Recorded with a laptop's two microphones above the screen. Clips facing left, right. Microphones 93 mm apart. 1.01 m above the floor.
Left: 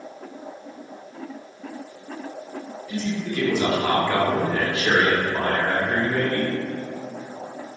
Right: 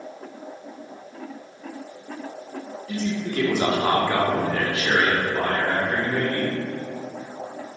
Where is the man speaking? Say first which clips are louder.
Even; 55° right (ahead or behind), 1.0 m; by 6.5 s 65° left (ahead or behind), 1.3 m.